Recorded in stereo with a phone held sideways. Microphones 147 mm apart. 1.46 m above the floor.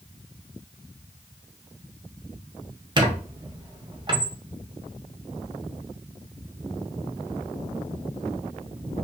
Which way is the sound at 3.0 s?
30° right (ahead or behind).